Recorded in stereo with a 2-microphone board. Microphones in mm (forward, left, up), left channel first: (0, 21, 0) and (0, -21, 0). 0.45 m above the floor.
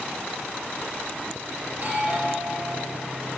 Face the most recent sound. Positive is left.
turn(degrees=-45)  # may be behind; listen again after turning